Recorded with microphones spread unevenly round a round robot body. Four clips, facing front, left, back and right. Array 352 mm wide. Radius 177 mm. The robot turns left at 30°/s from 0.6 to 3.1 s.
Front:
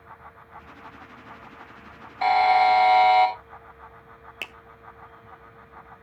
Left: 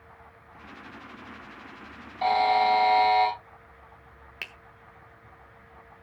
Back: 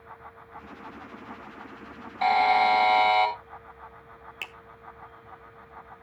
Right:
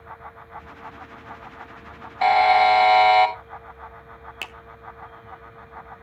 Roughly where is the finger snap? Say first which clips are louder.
Right 4 dB, front 3 dB; ahead right.